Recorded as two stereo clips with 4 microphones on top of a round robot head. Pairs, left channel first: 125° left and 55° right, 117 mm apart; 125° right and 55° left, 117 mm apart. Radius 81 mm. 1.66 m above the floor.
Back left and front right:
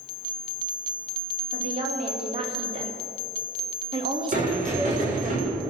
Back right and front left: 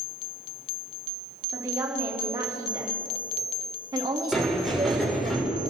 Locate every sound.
1.5 s a woman speaking: 10° right, 5 m; by 5.3 s 15° left, 1.3 m
4.3 s a sliding door: 35° right, 7 m